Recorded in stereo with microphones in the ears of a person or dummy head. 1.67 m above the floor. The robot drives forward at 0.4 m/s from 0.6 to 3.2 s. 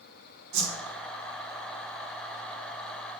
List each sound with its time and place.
0.5 s a whoosh: 50° right (ahead or behind), 2 m; by 0.9 s 45° right (ahead or behind), 2 m